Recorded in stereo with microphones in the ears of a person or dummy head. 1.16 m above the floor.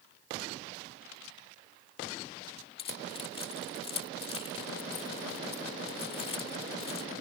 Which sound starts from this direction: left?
Keys jangling, at 2.8 s.